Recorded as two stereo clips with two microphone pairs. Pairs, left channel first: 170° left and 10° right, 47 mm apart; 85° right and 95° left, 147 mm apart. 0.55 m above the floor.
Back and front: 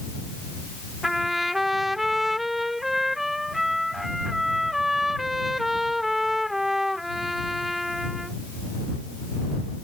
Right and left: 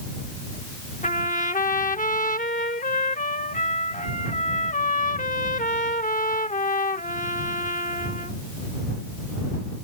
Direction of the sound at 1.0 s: 90° right.